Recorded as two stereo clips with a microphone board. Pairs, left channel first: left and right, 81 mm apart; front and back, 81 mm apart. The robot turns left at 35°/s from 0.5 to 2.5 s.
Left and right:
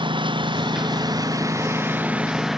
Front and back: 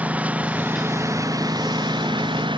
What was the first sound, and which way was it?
A lawn mower, 105° right.